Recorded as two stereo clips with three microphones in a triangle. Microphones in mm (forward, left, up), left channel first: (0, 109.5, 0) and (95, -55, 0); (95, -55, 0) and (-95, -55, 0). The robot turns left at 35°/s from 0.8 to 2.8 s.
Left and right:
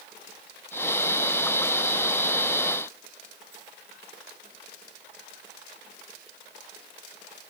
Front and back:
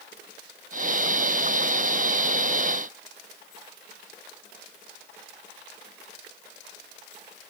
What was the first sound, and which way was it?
Only background noise.